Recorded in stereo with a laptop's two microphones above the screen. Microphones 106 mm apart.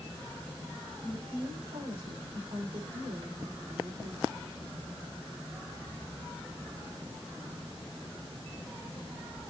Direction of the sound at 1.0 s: 65° right (ahead or behind).